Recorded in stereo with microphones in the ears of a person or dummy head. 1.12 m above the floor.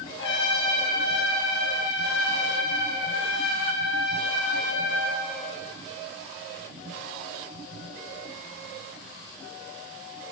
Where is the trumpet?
85° left, 6.5 m.